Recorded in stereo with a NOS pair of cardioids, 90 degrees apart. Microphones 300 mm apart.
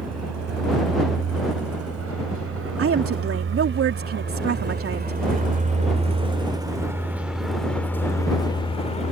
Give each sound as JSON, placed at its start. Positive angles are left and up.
{"t": 0.0, "sound": "a vehicle", "azimuth_deg": -60}
{"t": 2.8, "sound": "a woman speaking", "azimuth_deg": -45}